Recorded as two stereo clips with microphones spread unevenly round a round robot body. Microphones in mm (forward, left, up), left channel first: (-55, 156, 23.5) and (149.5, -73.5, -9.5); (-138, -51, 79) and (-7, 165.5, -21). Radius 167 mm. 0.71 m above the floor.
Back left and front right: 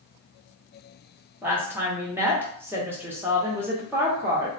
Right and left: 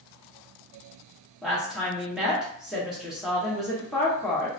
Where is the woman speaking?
15° left, 0.8 m.